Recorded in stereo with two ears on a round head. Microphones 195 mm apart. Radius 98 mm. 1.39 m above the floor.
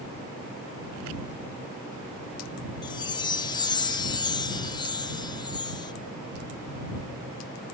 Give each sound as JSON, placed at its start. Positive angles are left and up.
{"t": 2.8, "sound": "a chime", "side_deg": 20}